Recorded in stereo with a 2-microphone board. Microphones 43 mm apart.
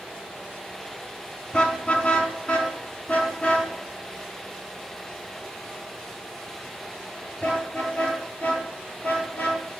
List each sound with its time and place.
1.5 s a car horn: 25° left (ahead or behind), 3.5 m; by 9.6 s 35° left (ahead or behind), 9 m